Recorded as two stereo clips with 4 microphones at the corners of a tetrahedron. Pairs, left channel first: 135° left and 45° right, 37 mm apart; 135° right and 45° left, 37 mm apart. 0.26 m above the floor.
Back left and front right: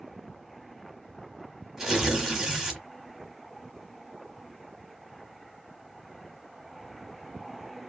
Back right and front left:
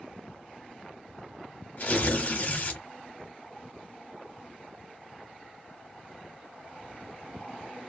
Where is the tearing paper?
115° right, 1.1 m.